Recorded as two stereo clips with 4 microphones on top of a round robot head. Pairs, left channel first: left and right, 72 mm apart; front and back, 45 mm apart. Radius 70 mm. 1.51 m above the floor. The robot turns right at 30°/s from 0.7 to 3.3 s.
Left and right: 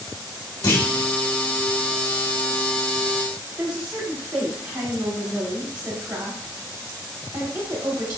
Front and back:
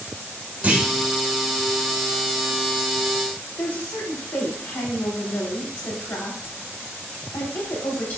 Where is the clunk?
120° left, 1.7 m; by 0.8 s 125° left, 1.7 m.